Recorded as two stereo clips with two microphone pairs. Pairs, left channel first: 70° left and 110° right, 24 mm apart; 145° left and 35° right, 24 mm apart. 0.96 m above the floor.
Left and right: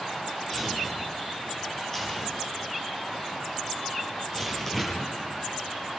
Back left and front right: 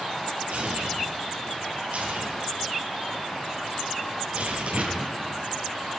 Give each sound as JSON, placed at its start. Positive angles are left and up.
{"t": 0.5, "sound": "tearing paper", "azimuth_deg": -10, "distance_m": 8.5}